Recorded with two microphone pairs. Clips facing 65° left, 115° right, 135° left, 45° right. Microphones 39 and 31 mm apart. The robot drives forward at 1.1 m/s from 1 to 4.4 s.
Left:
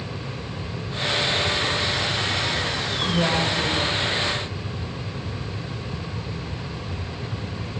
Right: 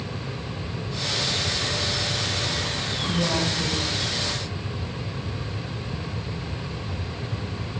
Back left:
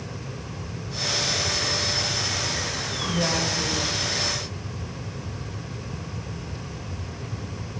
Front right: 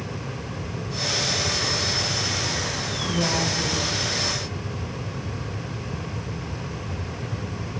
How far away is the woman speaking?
About 5 m.